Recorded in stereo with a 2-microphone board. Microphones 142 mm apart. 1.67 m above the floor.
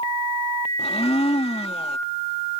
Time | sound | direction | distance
0.8 | a blender | 45° left (ahead or behind) | ?